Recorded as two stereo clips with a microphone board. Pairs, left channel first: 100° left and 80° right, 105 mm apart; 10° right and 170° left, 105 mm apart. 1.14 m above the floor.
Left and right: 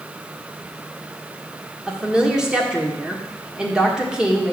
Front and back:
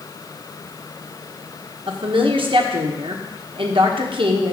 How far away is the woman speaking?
About 1.2 m.